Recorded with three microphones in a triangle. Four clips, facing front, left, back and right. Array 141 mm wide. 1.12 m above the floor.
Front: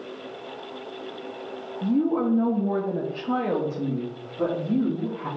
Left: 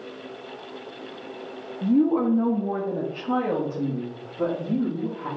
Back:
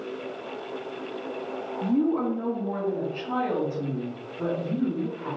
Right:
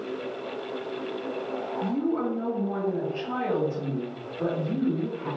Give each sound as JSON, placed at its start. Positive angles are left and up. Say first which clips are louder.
{"t": 1.8, "sound": "a woman speaking", "louder": "left 8 dB, front 1 dB", "azimuth_deg": 75, "distance_m": 0.7}